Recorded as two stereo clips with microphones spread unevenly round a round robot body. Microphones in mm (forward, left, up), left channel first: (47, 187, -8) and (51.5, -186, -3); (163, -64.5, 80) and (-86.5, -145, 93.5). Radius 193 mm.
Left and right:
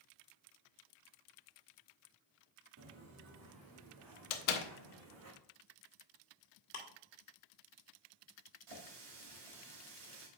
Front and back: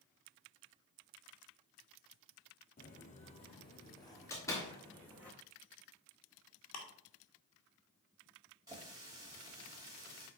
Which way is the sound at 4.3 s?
100° left.